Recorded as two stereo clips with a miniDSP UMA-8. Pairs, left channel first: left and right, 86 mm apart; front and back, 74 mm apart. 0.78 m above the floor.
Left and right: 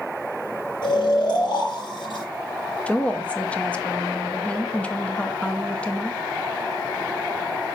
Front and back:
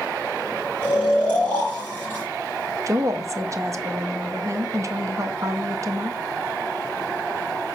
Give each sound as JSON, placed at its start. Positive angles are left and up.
{"t": 0.8, "sound": "snoring", "azimuth_deg": 70, "distance_m": 3.5}
{"t": 2.9, "sound": "a woman speaking", "azimuth_deg": 160, "distance_m": 0.5}